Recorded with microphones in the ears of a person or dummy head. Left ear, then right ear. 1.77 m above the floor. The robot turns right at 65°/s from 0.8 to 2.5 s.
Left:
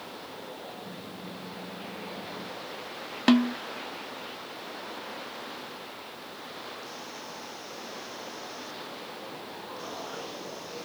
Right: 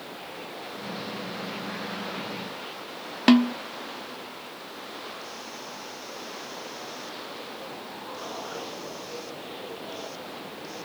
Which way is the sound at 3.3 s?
Centre (ahead or behind).